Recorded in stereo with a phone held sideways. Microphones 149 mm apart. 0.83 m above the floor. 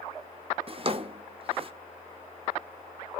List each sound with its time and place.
0.7 s a drawer: 40° right (ahead or behind), 0.6 m